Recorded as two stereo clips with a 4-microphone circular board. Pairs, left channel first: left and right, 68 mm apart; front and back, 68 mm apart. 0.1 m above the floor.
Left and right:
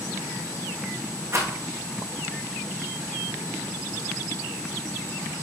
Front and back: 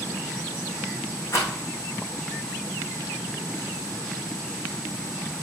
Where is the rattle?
50° right, 3 m.